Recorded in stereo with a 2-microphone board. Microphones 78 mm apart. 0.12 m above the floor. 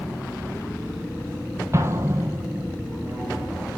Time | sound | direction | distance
1.7 | an explosion | 35° right (ahead or behind) | 1.5 m